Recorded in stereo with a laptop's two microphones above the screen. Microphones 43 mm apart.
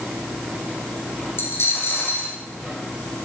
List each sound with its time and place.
1.4 s a dropped coin: 65° left (ahead or behind), 5 m